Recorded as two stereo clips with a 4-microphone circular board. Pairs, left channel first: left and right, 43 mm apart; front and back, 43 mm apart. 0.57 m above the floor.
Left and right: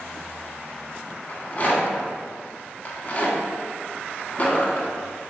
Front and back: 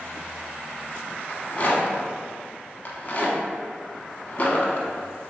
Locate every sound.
1.3 s a rattle: 45° left, 0.7 m